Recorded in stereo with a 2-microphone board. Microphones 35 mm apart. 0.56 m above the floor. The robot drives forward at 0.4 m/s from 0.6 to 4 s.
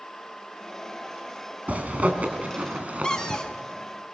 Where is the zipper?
50° right (ahead or behind), 3 m; by 3.4 s 40° right (ahead or behind), 3.5 m.